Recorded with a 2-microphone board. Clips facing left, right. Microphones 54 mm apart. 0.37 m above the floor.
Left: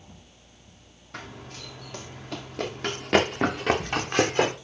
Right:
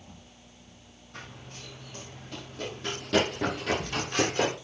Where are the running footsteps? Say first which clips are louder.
Left 5 dB; 85° left, 3 m; by 4.5 s 35° left (ahead or behind), 2.5 m.